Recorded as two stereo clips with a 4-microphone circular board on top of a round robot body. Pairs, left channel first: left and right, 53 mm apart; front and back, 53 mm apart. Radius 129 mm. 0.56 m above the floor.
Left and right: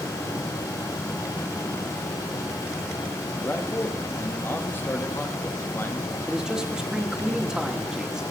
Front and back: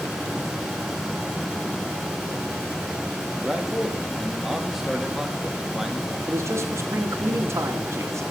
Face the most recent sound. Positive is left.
turn(degrees=-170)